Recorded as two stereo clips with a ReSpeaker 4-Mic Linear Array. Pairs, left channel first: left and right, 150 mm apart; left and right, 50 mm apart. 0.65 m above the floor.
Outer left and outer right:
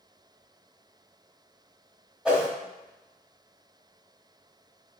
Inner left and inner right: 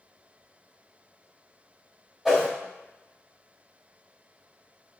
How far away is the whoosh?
About 1.1 m.